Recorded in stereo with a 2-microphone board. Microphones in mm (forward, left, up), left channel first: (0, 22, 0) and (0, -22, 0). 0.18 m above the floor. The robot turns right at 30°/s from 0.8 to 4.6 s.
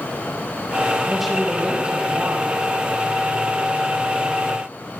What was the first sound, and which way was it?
A woman speaking, 175° left.